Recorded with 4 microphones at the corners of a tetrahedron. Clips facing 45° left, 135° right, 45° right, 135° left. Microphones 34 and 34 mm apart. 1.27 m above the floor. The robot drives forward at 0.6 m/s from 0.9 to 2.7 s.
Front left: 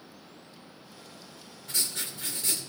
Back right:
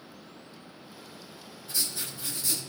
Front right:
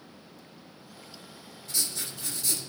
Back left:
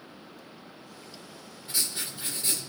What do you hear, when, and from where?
1.7 s writing: 70° left, 3 m; by 2.7 s 85° left, 2.5 m